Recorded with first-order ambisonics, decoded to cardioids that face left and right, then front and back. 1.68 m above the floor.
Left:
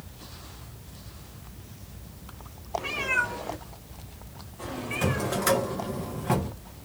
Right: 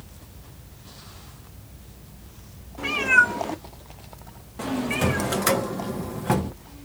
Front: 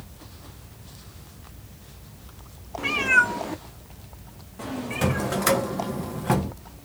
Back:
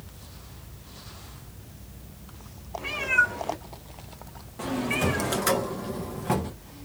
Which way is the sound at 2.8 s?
35° right.